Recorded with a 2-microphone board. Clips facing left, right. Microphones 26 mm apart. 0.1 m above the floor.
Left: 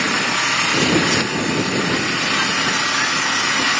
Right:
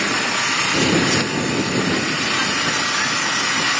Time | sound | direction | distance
0.0 | an engine running | 5° left (ahead or behind) | ?